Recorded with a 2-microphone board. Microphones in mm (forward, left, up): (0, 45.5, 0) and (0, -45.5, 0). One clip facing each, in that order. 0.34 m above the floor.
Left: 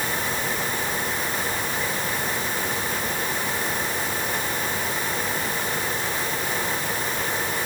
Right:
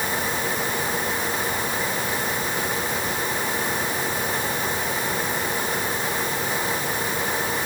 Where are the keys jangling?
I don't hear keys jangling.